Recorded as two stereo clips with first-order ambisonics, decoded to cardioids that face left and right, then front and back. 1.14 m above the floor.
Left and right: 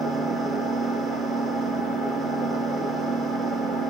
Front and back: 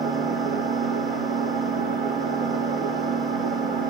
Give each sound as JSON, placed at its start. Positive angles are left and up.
{"t": 0.0, "sound": "an engine running", "azimuth_deg": -145, "distance_m": 3.0}